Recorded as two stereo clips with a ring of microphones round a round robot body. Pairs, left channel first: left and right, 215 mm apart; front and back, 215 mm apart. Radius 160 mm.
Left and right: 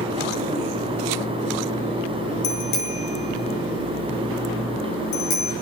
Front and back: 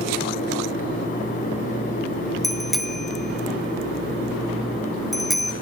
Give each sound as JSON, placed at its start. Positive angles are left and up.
{"t": 2.4, "sound": "a bicycle bell", "azimuth_deg": 90, "distance_m": 4.0}